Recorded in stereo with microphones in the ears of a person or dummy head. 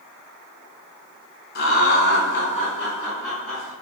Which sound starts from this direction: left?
Laughter, at 1.6 s.